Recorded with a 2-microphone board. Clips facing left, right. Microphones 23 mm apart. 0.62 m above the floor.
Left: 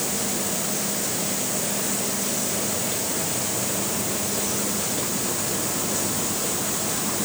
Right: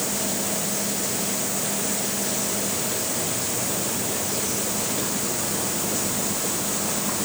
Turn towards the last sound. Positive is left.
No sound to turn to.